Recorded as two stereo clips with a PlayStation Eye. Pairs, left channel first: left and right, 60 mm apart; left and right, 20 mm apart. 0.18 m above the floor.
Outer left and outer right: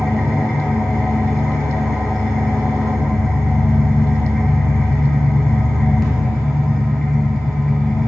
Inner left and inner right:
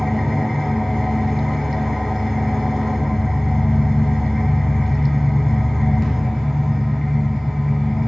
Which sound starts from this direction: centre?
An engine running, at 0.0 s.